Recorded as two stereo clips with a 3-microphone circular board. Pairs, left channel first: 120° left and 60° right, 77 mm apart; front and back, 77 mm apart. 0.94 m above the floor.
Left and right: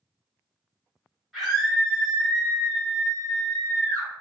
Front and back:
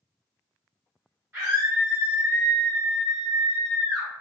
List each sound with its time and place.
1.3 s a scream: 140° right, 1.2 m; by 4.1 s 85° left, 1.1 m